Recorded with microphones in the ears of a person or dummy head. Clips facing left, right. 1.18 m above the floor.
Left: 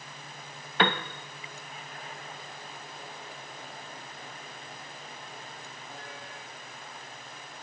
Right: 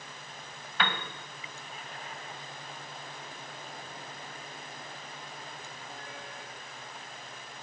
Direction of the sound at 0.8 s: 20° left (ahead or behind).